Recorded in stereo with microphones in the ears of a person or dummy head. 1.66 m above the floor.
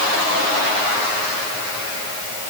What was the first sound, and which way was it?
Only background noise.